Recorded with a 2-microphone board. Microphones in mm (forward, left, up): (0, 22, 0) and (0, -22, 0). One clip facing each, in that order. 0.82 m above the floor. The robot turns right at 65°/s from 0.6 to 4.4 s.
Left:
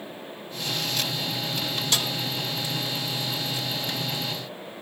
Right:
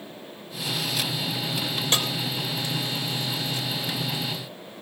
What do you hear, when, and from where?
1.9 s a snare drum: 35° right (ahead or behind), 3.5 m; by 2.1 s 25° right (ahead or behind), 3.5 m